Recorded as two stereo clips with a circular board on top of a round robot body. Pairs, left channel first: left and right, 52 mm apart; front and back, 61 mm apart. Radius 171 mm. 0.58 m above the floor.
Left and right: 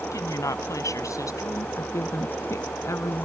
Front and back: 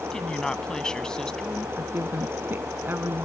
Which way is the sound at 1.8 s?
125° left.